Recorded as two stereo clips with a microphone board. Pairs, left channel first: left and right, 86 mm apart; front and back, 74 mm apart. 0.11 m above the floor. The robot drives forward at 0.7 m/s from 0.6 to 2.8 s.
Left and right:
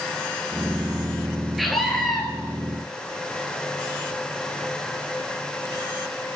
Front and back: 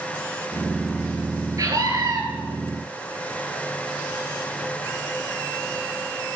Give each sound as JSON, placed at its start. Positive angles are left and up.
{"t": 1.6, "sound": "a scream", "azimuth_deg": 180, "distance_m": 2.5}